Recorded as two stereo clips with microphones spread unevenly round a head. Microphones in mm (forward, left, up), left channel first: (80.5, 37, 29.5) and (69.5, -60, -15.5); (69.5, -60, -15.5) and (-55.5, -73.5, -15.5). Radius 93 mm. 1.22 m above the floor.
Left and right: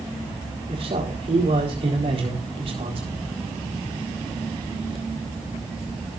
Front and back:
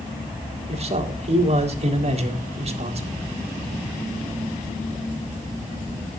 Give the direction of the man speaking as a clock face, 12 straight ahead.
5 o'clock.